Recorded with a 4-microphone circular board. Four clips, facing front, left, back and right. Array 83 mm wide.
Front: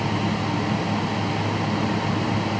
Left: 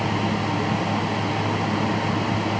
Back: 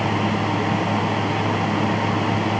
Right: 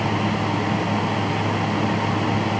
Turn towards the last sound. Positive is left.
No sound to turn to.